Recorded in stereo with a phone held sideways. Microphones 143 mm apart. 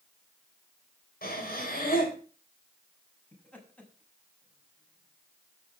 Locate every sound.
1.2 s breathing: 80° left, 4 m
3.3 s laughter: 10° left (ahead or behind), 6 m